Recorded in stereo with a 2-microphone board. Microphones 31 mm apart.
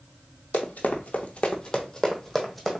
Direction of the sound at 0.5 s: 65° left (ahead or behind).